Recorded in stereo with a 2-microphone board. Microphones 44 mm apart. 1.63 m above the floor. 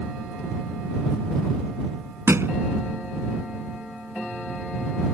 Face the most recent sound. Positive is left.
turn(degrees=-65)  # may be behind; listen again after turning